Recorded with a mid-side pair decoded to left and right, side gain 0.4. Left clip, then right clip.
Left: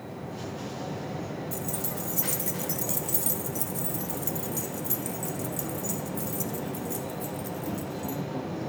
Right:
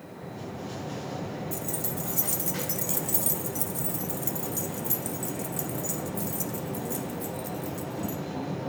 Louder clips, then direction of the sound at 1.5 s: Even; 5° right.